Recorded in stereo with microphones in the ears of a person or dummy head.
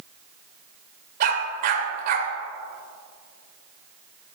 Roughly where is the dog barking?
Right.